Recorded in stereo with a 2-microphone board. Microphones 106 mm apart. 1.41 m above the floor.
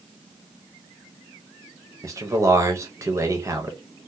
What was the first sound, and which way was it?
A man speaking, 30° right (ahead or behind).